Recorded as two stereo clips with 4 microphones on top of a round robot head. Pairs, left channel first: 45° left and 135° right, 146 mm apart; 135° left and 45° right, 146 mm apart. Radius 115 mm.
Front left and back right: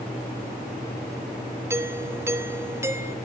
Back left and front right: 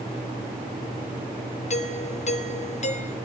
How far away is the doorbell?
About 2.5 m.